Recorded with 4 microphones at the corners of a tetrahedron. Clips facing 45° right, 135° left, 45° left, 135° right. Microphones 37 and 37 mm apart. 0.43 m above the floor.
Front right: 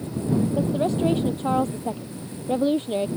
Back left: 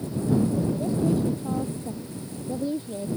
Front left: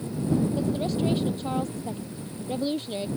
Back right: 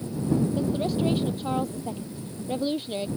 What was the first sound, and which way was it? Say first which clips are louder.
A woman speaking: front right 3 dB, back right 1 dB; 55° right.